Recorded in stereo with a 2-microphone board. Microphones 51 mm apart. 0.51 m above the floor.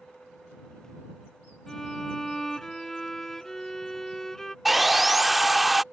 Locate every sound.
1.7 s a violin: 10° left (ahead or behind)
4.7 s sawing: 5° right (ahead or behind)